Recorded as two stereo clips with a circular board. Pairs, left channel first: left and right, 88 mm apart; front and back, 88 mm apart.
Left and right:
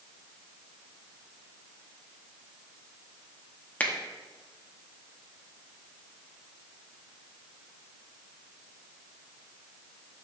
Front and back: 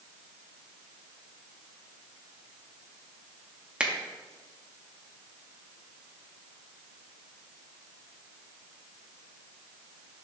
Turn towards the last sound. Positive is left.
turn(degrees=125)